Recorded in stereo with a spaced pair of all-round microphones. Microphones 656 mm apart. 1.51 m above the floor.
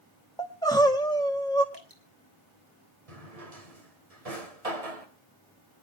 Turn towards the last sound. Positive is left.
turn(degrees=-60)  # may be behind; listen again after turning